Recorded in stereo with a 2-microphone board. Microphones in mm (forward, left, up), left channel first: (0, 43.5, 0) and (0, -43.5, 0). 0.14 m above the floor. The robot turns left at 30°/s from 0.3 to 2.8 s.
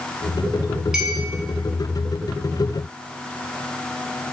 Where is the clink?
5° right (ahead or behind), 0.8 m.